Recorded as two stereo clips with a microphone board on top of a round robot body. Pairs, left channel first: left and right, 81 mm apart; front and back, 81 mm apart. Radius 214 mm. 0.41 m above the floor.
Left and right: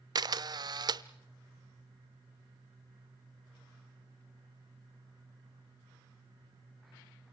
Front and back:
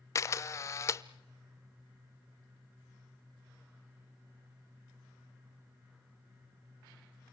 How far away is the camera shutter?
About 0.7 m.